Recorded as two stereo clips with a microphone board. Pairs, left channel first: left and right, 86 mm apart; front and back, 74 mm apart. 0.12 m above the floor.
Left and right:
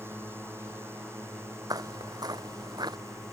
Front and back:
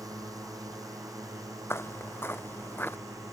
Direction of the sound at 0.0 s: 150° right.